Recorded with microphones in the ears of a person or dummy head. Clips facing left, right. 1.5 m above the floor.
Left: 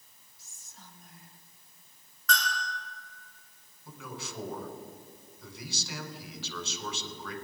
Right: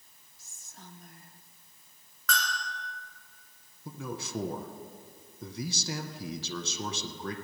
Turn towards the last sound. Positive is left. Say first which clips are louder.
# right 4 dB
turn(degrees=-45)  # may be behind; listen again after turning